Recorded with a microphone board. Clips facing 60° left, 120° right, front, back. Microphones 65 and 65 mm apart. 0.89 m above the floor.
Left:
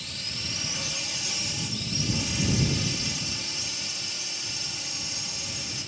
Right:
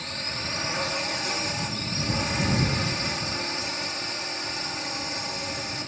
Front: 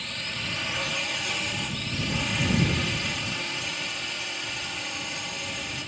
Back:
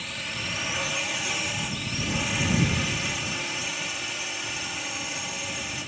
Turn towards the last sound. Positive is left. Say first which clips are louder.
# right 6 dB, even
turn(degrees=-95)